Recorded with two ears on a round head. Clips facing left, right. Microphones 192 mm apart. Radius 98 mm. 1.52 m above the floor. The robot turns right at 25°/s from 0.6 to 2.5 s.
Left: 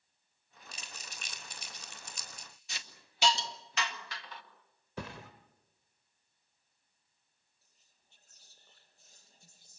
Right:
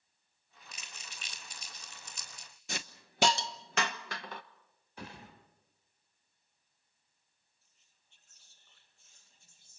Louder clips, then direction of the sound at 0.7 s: Left 3 dB; 25° left (ahead or behind).